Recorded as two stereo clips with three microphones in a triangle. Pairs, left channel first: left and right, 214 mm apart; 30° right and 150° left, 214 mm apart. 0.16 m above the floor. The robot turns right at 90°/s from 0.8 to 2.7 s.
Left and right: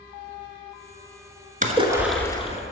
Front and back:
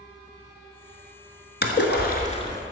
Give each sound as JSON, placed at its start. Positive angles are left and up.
{"t": 1.6, "sound": "a splash", "azimuth_deg": -45, "distance_m": 1.2}